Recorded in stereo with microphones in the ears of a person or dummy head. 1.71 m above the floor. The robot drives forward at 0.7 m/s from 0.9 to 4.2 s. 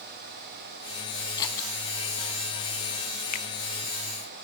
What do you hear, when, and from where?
1.4 s scissors: 15° left (ahead or behind), 3 m
3.3 s a finger snap: 50° left (ahead or behind), 1.3 m; by 3.5 s 45° left (ahead or behind), 1.3 m